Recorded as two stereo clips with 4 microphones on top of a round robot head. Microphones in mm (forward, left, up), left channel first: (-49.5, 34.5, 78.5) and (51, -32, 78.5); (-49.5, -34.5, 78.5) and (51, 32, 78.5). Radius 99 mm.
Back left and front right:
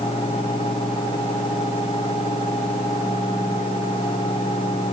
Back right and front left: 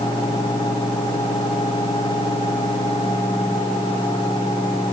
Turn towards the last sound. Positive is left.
No sound to turn to.